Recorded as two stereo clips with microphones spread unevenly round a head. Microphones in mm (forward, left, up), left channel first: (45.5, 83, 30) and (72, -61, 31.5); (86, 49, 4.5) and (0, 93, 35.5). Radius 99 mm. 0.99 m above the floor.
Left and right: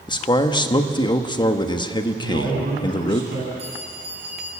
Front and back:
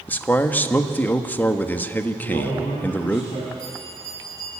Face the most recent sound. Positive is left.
turn(degrees=-140)